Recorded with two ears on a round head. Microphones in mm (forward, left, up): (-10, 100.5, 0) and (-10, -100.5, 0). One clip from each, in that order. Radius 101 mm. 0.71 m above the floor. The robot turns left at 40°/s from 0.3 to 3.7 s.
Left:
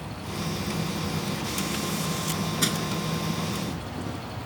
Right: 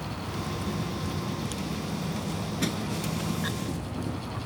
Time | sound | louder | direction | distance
0.0 | an insect | left 1 dB | 175° left | ?
2.6 | crushing | left 5 dB | 45° left (ahead or behind) | ?